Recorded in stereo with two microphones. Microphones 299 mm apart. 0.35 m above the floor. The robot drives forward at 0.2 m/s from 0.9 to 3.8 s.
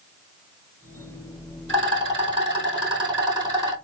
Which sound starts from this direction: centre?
A rattle, at 1.7 s.